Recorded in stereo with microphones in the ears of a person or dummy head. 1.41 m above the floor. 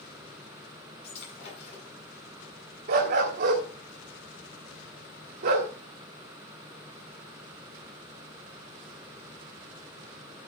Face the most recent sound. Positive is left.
turn(degrees=-45)  # may be behind; listen again after turning